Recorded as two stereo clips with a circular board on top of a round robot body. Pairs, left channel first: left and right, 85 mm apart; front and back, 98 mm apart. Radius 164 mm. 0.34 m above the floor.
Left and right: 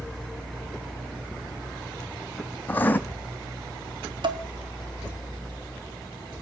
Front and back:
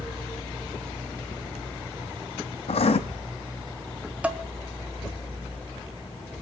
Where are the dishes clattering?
105° right, 1.5 m.